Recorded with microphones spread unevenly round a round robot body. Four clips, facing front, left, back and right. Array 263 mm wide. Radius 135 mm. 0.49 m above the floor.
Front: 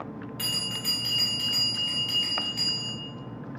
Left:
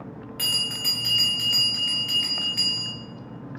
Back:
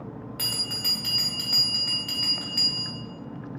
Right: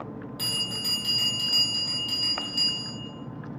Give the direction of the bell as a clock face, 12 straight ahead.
6 o'clock.